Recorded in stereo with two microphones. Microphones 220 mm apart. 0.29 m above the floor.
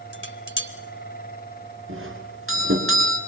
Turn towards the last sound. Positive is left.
turn(degrees=-70)  # may be behind; listen again after turning